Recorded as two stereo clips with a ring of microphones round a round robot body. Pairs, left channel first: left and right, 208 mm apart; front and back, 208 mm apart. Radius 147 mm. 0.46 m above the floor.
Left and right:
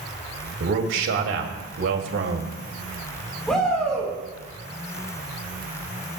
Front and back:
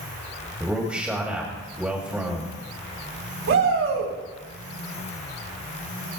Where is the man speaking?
95° right, 2.5 m.